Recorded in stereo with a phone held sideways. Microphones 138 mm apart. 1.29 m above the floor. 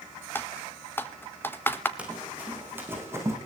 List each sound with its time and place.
0.3 s typing on a keyboard: 15° left (ahead or behind), 1.5 m
2.0 s running footsteps: 10° right (ahead or behind), 6 m; by 3.4 s 20° right (ahead or behind), 5.5 m